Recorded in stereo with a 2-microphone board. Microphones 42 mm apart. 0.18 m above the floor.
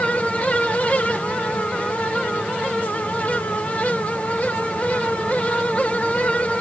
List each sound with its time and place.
Only background noise.